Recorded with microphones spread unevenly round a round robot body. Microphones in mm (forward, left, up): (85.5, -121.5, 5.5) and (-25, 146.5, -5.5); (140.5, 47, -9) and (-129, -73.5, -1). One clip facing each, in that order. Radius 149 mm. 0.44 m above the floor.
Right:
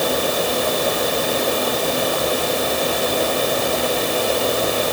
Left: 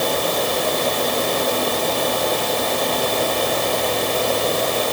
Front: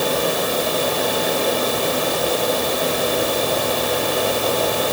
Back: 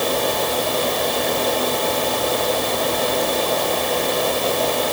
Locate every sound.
Only background noise.